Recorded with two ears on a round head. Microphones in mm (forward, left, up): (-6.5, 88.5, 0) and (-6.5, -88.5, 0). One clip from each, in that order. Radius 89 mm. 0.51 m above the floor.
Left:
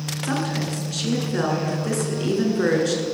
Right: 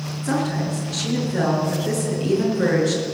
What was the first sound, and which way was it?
A woman speaking, 25° left (ahead or behind).